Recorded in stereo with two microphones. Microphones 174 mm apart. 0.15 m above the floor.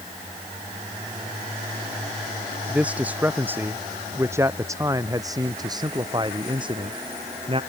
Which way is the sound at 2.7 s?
5° right (ahead or behind).